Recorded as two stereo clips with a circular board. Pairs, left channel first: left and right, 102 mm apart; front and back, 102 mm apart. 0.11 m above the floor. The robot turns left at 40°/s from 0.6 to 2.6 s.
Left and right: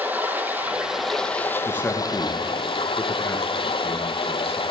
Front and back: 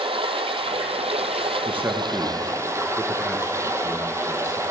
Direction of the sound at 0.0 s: 160° right.